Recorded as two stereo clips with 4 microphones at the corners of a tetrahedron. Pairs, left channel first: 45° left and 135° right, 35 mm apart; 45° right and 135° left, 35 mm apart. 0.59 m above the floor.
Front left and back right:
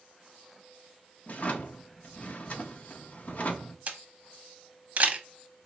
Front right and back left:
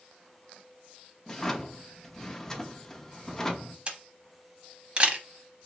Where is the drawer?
25° left, 0.6 m.